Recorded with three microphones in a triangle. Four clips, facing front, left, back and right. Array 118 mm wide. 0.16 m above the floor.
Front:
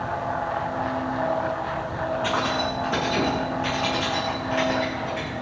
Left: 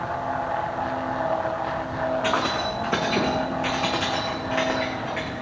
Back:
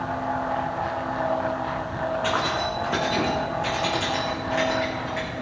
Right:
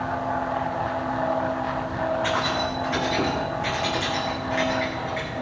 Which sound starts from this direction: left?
Keys jangling, at 2.2 s.